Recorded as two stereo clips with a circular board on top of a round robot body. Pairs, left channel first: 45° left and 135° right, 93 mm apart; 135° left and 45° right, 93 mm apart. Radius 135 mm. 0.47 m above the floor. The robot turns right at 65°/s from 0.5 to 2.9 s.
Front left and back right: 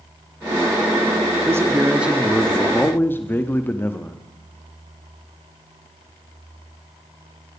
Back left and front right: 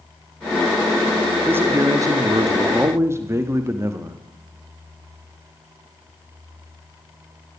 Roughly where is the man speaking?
Right.